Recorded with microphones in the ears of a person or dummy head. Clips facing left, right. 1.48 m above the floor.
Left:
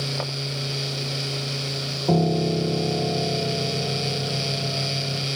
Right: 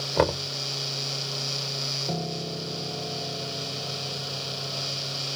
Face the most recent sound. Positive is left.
turn(degrees=70)  # may be behind; listen again after turning